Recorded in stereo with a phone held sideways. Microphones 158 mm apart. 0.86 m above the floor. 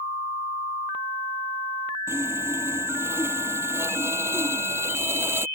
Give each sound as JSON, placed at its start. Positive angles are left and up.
{"t": 2.1, "sound": "sawing", "side_deg": -15}